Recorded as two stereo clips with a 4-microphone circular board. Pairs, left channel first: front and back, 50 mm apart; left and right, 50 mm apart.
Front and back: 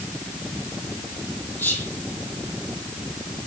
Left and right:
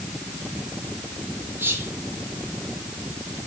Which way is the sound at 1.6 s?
50° right.